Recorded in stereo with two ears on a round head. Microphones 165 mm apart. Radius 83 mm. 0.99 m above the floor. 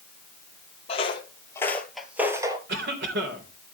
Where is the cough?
65° right (ahead or behind), 3.5 m.